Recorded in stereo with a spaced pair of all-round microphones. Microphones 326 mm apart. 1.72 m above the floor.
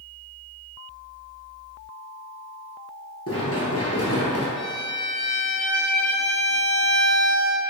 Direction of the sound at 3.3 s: 45° left (ahead or behind).